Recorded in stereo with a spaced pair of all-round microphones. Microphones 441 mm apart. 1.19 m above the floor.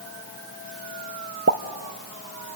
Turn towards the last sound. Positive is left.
turn(degrees=-35)  # may be behind; listen again after turning